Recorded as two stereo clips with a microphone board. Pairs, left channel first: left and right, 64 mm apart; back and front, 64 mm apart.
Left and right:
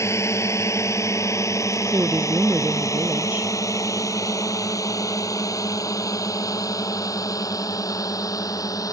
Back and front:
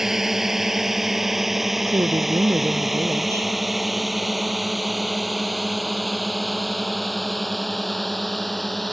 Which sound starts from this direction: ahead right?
A woman speaking, at 1.9 s.